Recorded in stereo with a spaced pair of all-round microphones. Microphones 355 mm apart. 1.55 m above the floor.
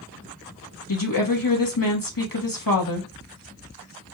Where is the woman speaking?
65° left (ahead or behind), 1.3 m.